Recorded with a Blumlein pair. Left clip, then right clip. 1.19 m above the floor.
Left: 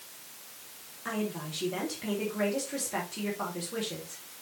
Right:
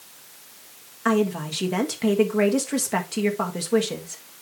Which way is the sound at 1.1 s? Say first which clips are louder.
Right 12 dB; 30° right.